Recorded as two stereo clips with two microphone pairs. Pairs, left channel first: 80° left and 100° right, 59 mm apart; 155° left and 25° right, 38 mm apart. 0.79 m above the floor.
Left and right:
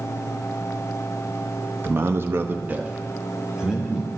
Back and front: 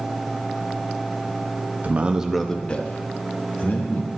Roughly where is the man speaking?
Ahead right.